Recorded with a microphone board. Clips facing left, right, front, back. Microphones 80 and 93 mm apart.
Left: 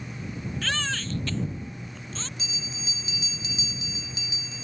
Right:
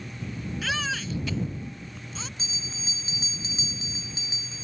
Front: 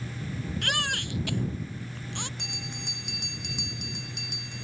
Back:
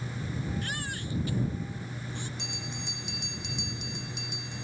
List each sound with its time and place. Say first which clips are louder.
0.6 s a baby crying: right 1 dB, front 5 dB; 5° right
2.4 s a bell: left 1 dB, even; 30° right